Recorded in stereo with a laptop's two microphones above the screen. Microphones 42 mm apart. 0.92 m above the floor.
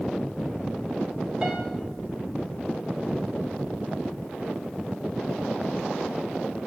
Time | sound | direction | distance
1.4 | a piano | 20° right (ahead or behind) | 2.5 m